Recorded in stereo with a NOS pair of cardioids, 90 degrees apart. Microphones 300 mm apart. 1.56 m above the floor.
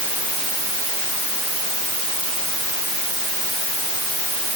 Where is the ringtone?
No ringtone in this recording.